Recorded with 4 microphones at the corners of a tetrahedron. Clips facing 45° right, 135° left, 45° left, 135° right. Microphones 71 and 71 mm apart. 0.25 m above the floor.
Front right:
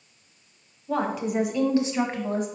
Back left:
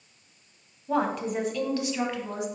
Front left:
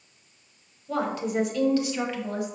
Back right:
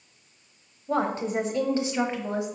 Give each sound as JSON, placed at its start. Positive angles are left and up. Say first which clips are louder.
{"t": 0.9, "sound": "a woman speaking", "louder": "even, back right 1 dB", "azimuth_deg": -150, "distance_m": 1.1}